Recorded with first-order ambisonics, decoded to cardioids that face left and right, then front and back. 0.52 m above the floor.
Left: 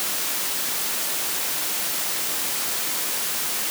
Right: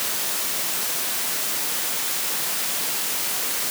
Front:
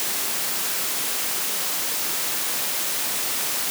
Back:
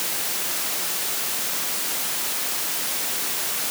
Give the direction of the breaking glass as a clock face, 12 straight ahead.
I don't hear breaking glass.